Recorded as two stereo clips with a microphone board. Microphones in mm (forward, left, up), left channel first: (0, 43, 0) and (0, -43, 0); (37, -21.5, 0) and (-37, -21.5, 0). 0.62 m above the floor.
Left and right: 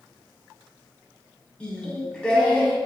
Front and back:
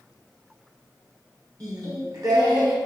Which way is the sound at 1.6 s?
165° left.